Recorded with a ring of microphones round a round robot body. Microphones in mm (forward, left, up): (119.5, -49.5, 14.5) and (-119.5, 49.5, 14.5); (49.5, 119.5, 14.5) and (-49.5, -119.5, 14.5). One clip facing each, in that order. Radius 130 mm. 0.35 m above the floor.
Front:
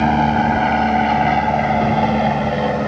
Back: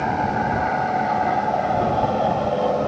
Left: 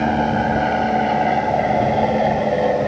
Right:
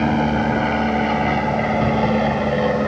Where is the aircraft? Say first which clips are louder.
Front 8 dB, right 1 dB; 35° right; by 2.9 s 55° right.